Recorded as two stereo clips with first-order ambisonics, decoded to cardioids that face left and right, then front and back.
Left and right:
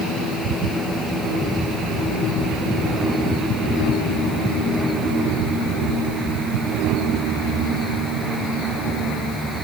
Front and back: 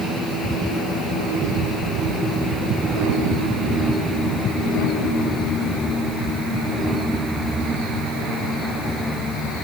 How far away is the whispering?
No whispering in this recording.